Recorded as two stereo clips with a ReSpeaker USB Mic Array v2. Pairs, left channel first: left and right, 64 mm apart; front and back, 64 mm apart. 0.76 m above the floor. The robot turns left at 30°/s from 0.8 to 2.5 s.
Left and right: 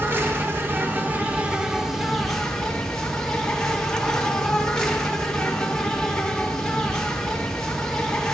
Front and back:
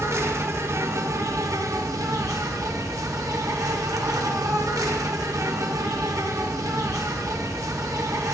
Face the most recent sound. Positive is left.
turn(degrees=170)